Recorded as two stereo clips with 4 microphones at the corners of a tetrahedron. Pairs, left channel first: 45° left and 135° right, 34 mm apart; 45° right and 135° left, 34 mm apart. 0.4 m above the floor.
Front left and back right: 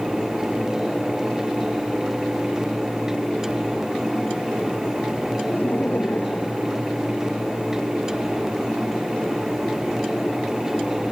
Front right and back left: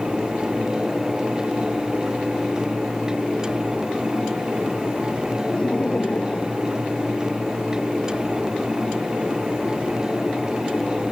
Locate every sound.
5.5 s laughter: 15° left; by 7.7 s 25° left